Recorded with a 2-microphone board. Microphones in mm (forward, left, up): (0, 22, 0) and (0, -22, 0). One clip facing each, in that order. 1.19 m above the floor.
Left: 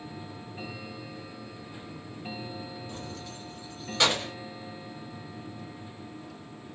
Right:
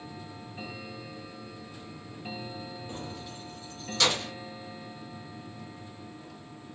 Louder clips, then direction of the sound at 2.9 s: Even; 35° right (ahead or behind).